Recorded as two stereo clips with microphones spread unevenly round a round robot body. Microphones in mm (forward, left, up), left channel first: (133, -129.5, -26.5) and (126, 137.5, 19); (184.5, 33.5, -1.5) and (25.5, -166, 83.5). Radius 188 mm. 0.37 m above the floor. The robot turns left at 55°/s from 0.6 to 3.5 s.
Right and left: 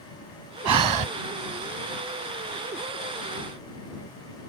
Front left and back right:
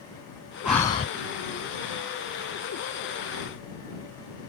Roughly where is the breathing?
Behind left.